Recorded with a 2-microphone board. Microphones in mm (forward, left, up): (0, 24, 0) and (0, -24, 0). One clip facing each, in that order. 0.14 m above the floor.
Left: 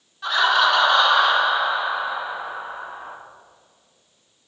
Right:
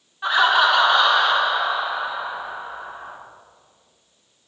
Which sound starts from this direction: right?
Laughter, at 0.2 s.